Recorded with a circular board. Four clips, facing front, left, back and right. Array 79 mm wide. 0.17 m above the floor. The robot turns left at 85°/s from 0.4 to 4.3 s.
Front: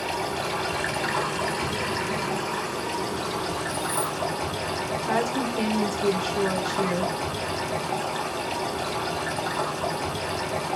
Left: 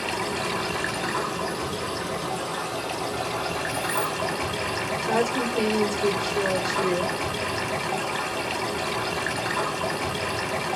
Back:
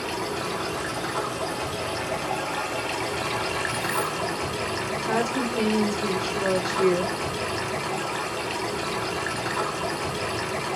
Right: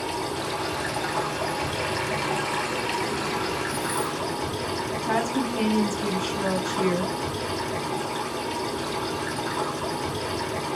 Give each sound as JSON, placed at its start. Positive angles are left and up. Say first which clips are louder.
{"t": 0.0, "sound": "running water", "louder": "left 1 dB, front 1 dB", "azimuth_deg": 90, "distance_m": 1.6}
{"t": 3.7, "sound": "keys jangling", "louder": "even, back 1 dB", "azimuth_deg": 155, "distance_m": 0.9}
{"t": 5.0, "sound": "a woman speaking", "louder": "left 1 dB, even", "azimuth_deg": -85, "distance_m": 1.6}